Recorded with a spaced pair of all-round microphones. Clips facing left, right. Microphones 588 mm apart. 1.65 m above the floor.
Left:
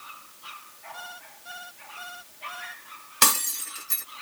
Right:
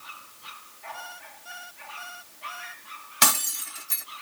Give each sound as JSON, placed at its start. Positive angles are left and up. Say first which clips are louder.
{"t": 0.9, "sound": "an alarm clock", "louder": "right 1 dB", "side_deg": 60}
{"t": 3.2, "sound": "breaking glass", "louder": "even", "side_deg": -10}